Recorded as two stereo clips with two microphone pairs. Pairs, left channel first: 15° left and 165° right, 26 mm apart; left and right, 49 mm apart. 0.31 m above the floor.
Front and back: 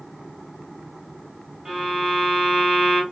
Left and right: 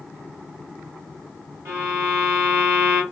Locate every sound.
1.6 s a violin: 120° right, 1.4 m